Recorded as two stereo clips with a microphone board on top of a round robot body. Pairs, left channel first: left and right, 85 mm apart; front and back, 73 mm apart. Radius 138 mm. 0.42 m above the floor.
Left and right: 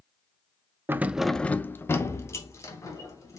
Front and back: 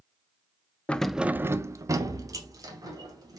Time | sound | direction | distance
0.9 | keys jangling | 60° right | 0.5 m